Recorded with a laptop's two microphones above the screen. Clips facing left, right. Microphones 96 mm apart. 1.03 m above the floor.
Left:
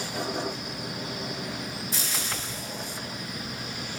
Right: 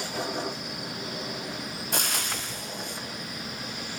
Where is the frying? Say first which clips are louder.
Right 2 dB; 60° right (ahead or behind), 0.7 m.